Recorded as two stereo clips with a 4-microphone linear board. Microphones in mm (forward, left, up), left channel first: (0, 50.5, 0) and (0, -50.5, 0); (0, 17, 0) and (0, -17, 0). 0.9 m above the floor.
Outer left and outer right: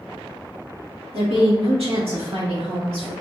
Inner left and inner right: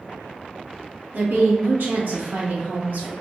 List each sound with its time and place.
1.1 s a woman speaking: 70° right (ahead or behind), 1.3 m; by 3.1 s 75° right (ahead or behind), 2.5 m